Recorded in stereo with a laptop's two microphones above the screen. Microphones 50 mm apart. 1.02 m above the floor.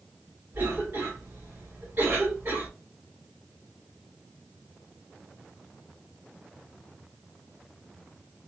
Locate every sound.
0.5 s a cough: 40° right (ahead or behind), 1.3 m